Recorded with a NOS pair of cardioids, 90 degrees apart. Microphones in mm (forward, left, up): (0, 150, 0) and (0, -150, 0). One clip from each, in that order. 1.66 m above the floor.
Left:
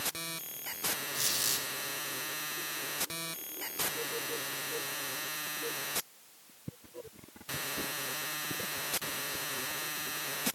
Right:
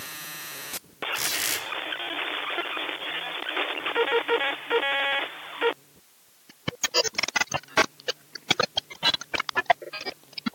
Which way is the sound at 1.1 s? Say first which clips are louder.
Right 7 dB; 30° right.